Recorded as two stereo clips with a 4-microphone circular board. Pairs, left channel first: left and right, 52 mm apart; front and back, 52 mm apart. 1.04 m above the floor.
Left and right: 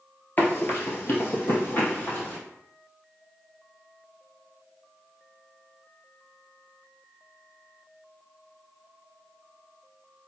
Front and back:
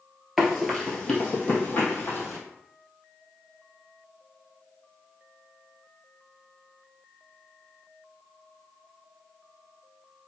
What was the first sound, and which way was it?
Running footsteps, 95° left.